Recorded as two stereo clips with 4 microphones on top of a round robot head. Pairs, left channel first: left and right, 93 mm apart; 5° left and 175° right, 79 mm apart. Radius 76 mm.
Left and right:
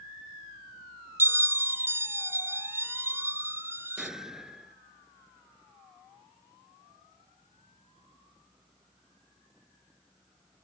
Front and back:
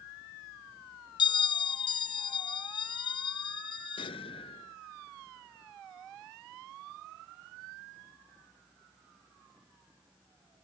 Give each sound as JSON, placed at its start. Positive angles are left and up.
{"t": 1.2, "sound": "a bell", "azimuth_deg": -25}
{"t": 4.0, "sound": "an explosion", "azimuth_deg": -5}